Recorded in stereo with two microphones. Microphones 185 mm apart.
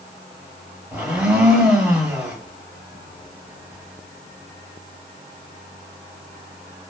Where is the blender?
5° right (ahead or behind), 0.8 m.